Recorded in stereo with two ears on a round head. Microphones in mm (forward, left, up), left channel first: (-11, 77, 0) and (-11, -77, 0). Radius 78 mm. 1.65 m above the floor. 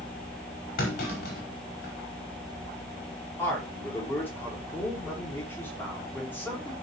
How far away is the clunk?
About 5.5 m.